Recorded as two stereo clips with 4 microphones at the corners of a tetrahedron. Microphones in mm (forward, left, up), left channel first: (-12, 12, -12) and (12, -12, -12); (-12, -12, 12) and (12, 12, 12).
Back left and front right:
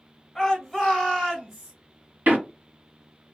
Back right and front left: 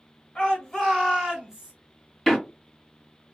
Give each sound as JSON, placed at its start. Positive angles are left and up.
{"t": 0.3, "sound": "a shout", "azimuth_deg": -150, "distance_m": 1.5}
{"t": 2.3, "sound": "a door slam", "azimuth_deg": -45, "distance_m": 1.3}